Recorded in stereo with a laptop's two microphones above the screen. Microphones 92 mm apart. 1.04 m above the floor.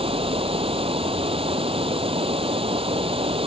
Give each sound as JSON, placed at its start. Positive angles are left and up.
{"t": 0.0, "sound": "running water", "side_deg": -80}